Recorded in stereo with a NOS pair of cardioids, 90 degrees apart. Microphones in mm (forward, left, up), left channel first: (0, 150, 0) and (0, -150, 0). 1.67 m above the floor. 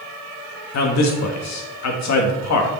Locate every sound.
0.7 s a man speaking: 65° left, 2.5 m